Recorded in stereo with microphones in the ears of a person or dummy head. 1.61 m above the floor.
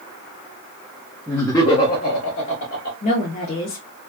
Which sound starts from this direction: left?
A woman speaking, at 3.0 s.